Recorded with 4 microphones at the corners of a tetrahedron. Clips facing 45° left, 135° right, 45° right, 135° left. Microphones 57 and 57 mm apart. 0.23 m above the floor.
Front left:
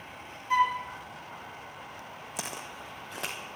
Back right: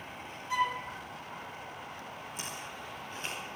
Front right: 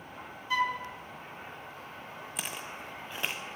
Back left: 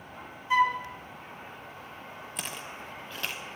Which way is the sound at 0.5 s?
75° left.